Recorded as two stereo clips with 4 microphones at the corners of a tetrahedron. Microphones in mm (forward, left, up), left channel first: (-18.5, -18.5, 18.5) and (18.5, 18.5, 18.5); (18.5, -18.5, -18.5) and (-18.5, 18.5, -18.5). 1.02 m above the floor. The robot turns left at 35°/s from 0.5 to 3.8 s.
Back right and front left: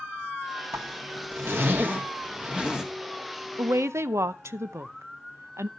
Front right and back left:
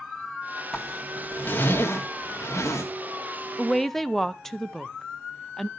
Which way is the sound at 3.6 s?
45° left.